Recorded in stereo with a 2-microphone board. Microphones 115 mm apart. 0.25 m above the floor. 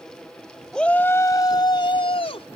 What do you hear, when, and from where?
0.7 s a shout: 5° left (ahead or behind); by 2.5 s 60° left (ahead or behind)